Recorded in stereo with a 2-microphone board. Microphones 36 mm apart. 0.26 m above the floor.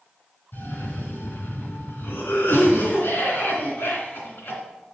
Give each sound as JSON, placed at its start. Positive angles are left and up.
{"t": 0.5, "sound": "a cough", "side_deg": 65, "distance_m": 2.5}